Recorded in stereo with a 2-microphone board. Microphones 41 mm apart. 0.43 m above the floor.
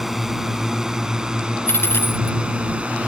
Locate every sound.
0.0 s a drone: 5° right (ahead or behind); by 3.1 s 35° right (ahead or behind)
1.7 s a dropped coin: 75° left (ahead or behind)